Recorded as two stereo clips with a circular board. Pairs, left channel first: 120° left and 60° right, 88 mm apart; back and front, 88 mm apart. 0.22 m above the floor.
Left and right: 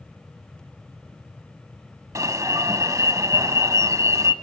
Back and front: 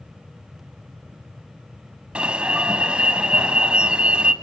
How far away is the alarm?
About 0.9 m.